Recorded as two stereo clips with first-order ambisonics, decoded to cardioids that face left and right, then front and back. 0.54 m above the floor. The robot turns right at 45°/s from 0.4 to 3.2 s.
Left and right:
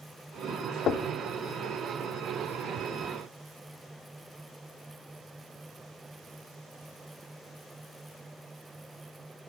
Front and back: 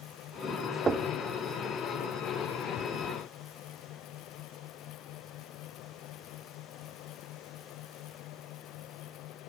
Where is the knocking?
120° left, 0.6 m; by 1.1 s 130° left, 0.6 m.